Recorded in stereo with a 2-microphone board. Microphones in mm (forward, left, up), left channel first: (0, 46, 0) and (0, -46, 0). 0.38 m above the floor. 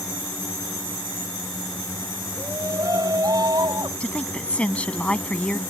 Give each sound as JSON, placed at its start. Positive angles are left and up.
{"t": 2.4, "sound": "a shout", "side_deg": -40}
{"t": 4.0, "sound": "a woman speaking", "side_deg": 15}